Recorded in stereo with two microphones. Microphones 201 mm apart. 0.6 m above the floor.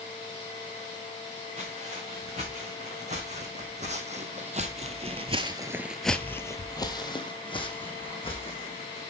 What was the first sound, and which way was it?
Footsteps, 35° right (ahead or behind).